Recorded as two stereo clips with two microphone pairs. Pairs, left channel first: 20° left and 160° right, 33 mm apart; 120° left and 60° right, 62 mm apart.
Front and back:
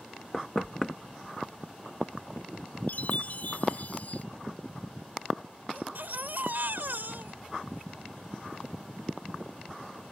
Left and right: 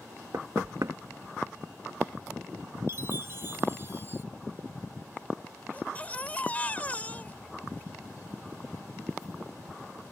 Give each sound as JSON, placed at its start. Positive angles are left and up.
{"t": 0.3, "sound": "knocking", "azimuth_deg": -50}
{"t": 2.9, "sound": "a chime", "azimuth_deg": -15}
{"t": 5.7, "sound": "a baby crying", "azimuth_deg": -175}